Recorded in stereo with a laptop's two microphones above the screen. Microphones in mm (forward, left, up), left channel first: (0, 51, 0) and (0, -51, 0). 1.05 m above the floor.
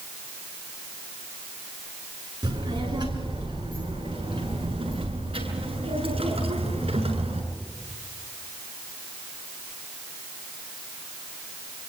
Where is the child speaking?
40° right (ahead or behind), 8 m; by 7.4 s 70° right (ahead or behind), 8.5 m.